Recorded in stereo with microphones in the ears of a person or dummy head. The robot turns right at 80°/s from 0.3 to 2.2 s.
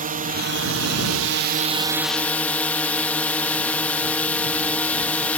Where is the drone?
140° right; by 5.4 s 10° left.